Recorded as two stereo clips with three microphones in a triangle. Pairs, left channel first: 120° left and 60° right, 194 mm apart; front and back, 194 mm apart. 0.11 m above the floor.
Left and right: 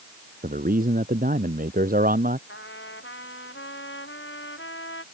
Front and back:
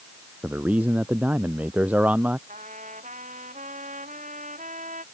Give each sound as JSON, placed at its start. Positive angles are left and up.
{"t": 0.4, "sound": "a man speaking", "azimuth_deg": -100}
{"t": 2.5, "sound": "a trumpet", "azimuth_deg": 130}